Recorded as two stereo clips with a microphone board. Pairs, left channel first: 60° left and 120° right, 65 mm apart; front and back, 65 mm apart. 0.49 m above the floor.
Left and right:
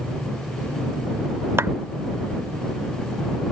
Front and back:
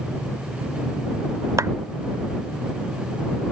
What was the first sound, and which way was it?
A clap, 160° right.